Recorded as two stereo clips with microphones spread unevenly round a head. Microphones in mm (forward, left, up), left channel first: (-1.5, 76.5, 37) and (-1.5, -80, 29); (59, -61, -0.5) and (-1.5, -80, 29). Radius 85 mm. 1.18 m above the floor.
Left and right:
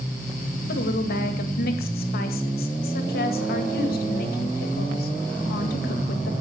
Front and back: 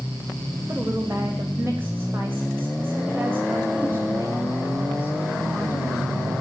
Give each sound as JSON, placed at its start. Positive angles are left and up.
{"t": 0.7, "sound": "a woman speaking", "azimuth_deg": 115, "distance_m": 2.0}